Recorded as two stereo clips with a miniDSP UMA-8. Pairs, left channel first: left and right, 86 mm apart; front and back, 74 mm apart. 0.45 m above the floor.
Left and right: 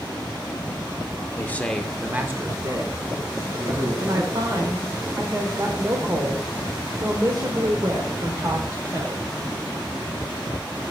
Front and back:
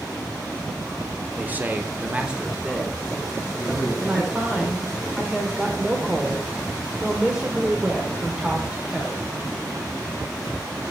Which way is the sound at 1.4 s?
130° left.